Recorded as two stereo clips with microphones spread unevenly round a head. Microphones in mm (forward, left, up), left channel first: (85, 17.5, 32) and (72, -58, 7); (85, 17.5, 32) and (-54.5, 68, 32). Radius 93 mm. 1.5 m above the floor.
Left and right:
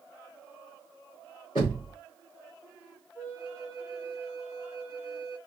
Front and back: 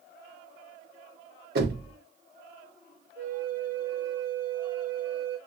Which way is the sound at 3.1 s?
150° left.